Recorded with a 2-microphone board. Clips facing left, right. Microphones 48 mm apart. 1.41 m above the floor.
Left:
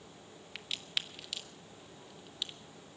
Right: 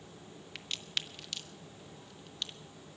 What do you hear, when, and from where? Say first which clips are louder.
0.6 s a crack: even; 5° left (ahead or behind), 0.8 m